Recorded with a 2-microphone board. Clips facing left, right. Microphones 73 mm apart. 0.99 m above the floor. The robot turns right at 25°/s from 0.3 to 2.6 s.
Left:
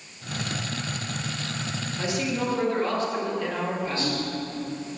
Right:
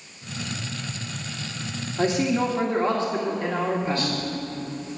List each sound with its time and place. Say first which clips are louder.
2.0 s a man speaking: right 6 dB; 40° right (ahead or behind), 2 m; by 4.2 s 25° right (ahead or behind), 2 m
4.0 s whispering: even; 25° left (ahead or behind), 3.5 m